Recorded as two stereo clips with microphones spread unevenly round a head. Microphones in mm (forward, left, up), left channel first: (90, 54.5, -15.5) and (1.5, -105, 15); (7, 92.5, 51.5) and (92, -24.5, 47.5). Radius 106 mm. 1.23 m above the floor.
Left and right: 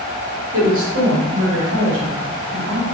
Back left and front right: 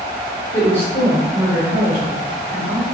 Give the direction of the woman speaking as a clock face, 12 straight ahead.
5 o'clock.